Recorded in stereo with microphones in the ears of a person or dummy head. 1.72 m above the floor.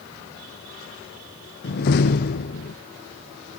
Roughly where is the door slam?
Left.